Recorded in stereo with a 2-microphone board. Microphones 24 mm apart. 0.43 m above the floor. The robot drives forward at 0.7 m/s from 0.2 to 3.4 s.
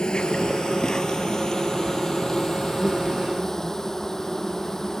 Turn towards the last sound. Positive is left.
turn(degrees=15)  # may be behind; listen again after turning